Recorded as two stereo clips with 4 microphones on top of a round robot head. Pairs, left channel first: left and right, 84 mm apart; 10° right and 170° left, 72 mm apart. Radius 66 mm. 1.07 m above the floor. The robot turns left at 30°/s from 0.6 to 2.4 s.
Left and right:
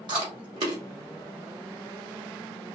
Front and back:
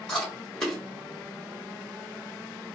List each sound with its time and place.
0.1 s chewing: 95° right, 0.9 m; by 0.8 s 100° right, 0.9 m